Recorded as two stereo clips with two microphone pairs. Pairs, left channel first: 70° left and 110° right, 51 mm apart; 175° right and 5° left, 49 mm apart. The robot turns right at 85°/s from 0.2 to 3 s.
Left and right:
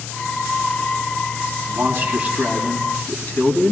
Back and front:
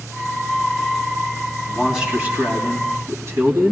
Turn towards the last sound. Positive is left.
turn(degrees=15)